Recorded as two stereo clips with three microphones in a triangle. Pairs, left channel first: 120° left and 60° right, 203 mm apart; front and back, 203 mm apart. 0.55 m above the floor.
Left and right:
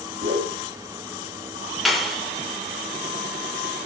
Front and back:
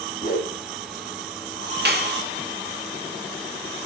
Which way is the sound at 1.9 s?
150° right.